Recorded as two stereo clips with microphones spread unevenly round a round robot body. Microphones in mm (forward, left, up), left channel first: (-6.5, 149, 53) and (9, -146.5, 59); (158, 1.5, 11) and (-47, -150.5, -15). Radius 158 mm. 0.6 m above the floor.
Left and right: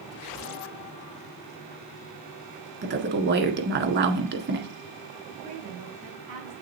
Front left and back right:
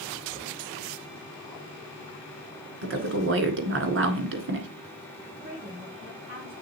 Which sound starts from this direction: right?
A woman speaking, at 5.4 s.